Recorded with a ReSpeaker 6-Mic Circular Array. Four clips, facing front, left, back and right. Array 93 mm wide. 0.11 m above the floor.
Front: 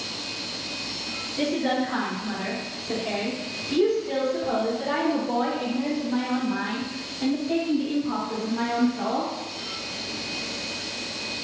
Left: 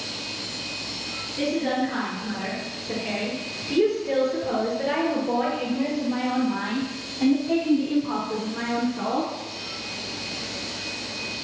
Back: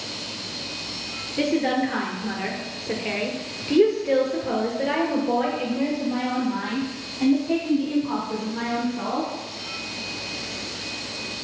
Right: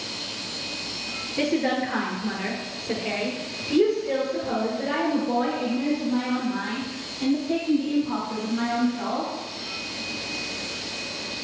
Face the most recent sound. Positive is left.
turn(degrees=125)